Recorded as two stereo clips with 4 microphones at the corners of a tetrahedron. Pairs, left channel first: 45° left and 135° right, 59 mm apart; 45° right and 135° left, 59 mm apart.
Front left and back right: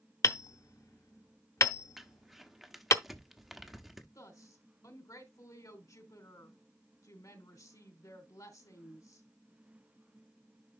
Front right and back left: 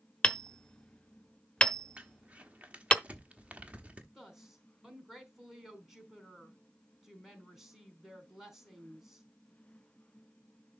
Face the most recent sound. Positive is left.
turn(degrees=50)